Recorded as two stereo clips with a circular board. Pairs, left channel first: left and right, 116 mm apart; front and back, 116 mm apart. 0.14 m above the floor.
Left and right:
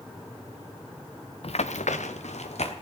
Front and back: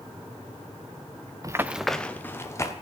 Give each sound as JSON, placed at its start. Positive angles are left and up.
{"t": 1.4, "sound": "running footsteps", "azimuth_deg": 125, "distance_m": 0.7}